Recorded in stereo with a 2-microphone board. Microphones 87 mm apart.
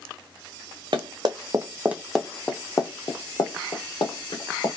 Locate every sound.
0.9 s running footsteps: 60° right (ahead or behind), 0.8 m; by 4.7 s 65° left (ahead or behind), 1.6 m